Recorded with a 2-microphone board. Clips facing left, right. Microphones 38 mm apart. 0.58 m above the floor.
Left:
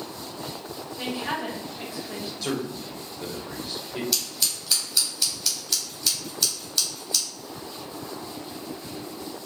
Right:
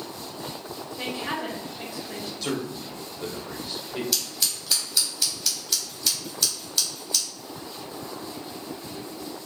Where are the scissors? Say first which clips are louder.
Even; 5° right (ahead or behind), 1.1 m.